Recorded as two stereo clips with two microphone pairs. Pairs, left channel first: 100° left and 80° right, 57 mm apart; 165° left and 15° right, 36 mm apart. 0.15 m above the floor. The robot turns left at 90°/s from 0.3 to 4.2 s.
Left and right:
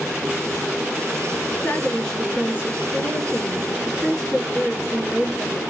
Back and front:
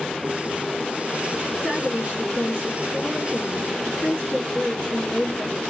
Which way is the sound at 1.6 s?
60° left.